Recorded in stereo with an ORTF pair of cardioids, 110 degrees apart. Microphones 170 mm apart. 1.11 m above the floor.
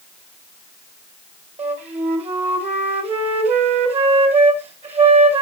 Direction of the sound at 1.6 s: 40° right.